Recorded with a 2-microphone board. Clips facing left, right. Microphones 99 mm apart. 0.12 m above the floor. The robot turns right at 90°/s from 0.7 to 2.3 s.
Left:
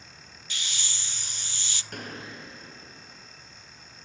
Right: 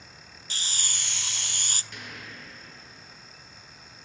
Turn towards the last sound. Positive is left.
turn(degrees=150)